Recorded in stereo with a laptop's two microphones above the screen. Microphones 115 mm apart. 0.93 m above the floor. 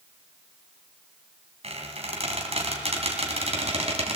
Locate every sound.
1.6 s a squeak: 70° right (ahead or behind), 2.5 m